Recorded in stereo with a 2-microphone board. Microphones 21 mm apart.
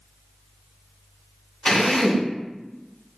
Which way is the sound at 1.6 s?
45° left (ahead or behind).